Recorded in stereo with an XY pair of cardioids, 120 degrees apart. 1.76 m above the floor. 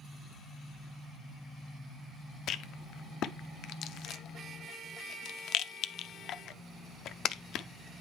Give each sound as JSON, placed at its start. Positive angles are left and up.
{"t": 2.5, "sound": "a rattle", "azimuth_deg": 60, "distance_m": 0.5}